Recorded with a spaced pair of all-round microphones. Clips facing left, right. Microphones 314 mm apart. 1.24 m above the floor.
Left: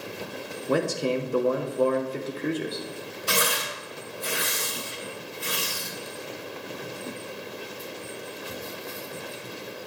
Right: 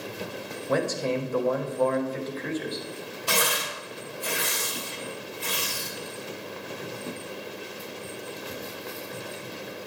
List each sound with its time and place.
0.7 s a man speaking: 40° left (ahead or behind), 0.9 m
3.3 s tearing paper: 25° left (ahead or behind), 2 m